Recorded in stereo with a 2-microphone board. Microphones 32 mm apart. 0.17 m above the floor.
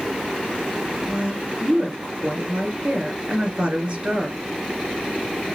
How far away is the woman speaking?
About 2.5 m.